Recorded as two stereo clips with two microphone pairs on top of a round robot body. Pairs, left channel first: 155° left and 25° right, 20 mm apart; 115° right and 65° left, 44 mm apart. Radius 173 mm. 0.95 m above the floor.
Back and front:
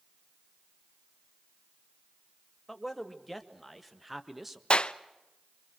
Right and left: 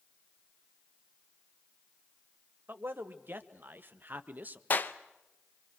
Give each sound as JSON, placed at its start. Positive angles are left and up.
{"t": 2.7, "sound": "a man speaking", "azimuth_deg": 75, "distance_m": 2.5}
{"t": 4.7, "sound": "a clap", "azimuth_deg": -160, "distance_m": 0.8}